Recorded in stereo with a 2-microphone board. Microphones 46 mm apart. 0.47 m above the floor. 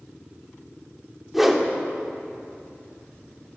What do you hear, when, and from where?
1.3 s a whoosh: 5° right (ahead or behind), 0.8 m